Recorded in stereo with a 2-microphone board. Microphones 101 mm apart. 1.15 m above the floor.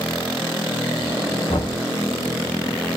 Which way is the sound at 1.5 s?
70° left (ahead or behind).